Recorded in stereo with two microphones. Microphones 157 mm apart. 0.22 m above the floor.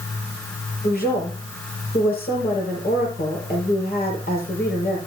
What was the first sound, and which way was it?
A woman speaking, 75° left (ahead or behind).